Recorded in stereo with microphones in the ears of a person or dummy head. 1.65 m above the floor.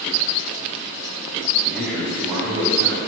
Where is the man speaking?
Centre (ahead or behind), 0.5 m; by 3.0 s 35° right (ahead or behind), 1.0 m.